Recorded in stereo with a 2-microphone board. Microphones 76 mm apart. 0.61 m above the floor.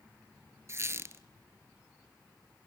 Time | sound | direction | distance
0.7 | a squeak | 40° right (ahead or behind) | 0.7 m